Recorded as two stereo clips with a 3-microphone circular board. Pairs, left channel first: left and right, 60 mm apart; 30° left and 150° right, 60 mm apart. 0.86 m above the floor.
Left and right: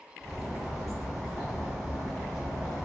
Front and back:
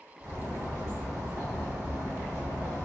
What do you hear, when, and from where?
0.2 s a bird: 175° left, 1.8 m